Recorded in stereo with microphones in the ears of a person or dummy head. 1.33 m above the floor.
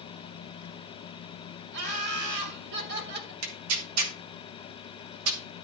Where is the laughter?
60° right (ahead or behind), 4.5 m; by 3.3 s 55° right (ahead or behind), 3.5 m.